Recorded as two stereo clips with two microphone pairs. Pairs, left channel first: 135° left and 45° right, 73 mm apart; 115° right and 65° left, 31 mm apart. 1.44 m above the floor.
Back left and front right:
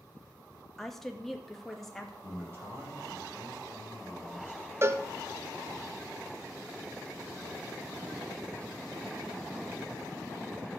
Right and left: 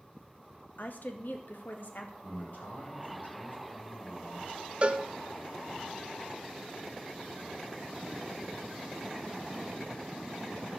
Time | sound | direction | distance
0.8 | a woman speaking | 140° right | 1.8 m
2.2 | a man speaking | 105° right | 8 m
4.8 | a cowbell | 10° left | 0.8 m